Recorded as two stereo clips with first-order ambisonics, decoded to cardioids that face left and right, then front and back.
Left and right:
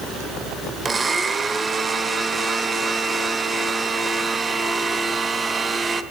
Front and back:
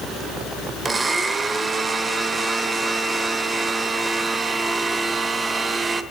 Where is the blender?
135° right, 1.1 m.